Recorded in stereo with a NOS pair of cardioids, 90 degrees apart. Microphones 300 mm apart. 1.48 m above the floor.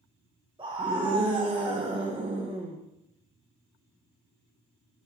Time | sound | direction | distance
0.6 | a scream | 15° right | 1.4 m